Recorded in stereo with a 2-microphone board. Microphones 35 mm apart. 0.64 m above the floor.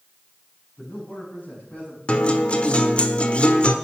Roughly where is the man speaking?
Left.